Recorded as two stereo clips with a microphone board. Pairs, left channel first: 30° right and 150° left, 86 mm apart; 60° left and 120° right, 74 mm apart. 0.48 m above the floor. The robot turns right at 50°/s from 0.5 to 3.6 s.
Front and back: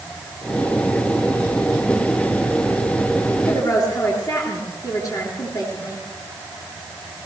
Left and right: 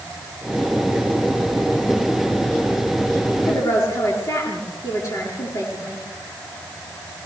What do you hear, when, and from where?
3.5 s a woman speaking: 20° left, 8.5 m; by 6.0 s 30° left, 8.5 m